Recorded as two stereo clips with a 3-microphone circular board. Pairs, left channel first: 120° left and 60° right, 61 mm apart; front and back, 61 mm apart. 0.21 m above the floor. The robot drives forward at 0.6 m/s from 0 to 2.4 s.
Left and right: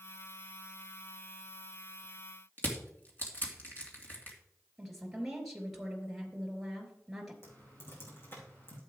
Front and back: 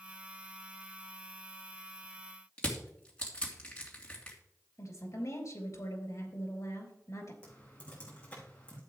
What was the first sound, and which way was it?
Crushing, 70° left.